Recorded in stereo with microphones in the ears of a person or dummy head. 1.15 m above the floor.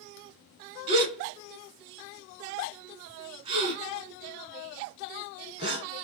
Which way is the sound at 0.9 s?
30° right (ahead or behind).